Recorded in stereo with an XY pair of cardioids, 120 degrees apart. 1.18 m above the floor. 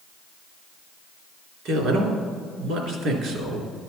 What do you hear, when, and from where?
1.6 s a man speaking: 65° right, 3 m